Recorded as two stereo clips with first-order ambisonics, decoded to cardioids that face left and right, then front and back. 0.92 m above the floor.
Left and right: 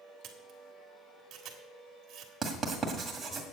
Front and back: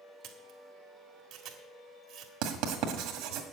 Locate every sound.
0.2 s a camera shutter: 140° right, 1.6 m
2.4 s writing: 170° right, 1.8 m